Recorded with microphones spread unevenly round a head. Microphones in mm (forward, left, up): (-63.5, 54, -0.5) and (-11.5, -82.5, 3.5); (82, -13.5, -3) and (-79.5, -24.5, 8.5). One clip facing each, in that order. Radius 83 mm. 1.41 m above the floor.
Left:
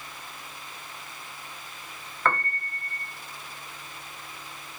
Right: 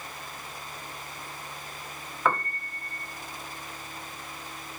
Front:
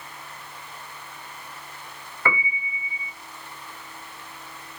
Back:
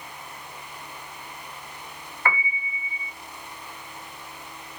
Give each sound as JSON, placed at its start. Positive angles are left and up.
{"t": 2.2, "sound": "a piano", "azimuth_deg": 15, "distance_m": 0.9}